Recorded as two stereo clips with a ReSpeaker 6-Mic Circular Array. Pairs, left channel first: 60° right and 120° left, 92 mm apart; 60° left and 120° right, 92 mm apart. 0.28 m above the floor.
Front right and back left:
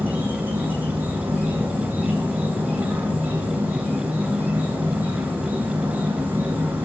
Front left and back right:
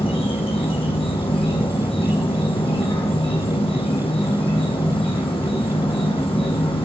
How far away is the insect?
About 2.5 m.